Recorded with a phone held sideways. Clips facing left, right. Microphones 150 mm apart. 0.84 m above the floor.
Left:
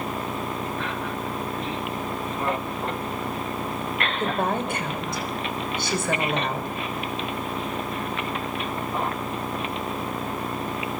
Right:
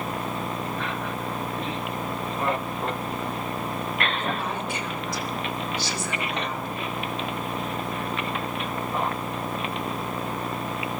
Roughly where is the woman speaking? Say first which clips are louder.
Left 4 dB; left.